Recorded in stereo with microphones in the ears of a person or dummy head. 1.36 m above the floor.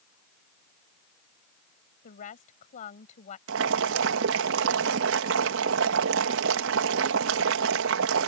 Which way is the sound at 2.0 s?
40° left (ahead or behind).